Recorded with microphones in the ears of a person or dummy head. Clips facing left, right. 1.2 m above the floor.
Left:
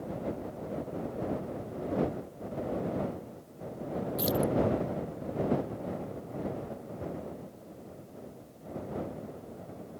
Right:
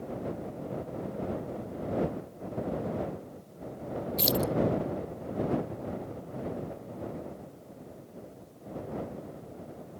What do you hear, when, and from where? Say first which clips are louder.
4.2 s keys jangling: even; 35° right (ahead or behind)